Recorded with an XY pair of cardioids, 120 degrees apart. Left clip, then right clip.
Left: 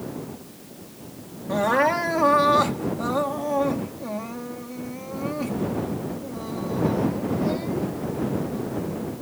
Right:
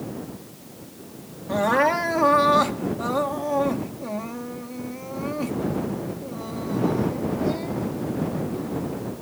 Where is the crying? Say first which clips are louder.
Even; 5° right.